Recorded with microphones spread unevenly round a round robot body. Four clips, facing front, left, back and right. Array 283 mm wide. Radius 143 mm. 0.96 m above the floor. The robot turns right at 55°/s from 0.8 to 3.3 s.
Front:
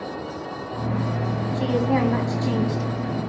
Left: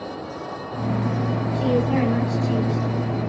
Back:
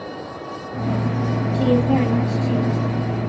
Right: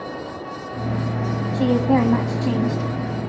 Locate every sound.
1.5 s a woman speaking: 125° right, 8.5 m; by 2.9 s 50° right, 8.5 m